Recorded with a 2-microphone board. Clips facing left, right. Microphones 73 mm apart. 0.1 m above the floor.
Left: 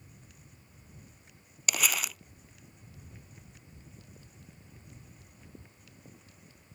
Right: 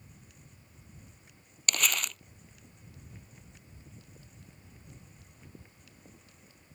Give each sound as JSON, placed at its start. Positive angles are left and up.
{"t": 1.7, "sound": "crumpling", "side_deg": 5}